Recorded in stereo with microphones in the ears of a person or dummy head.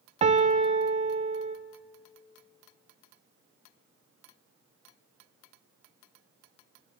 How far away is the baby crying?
I don't hear a baby crying.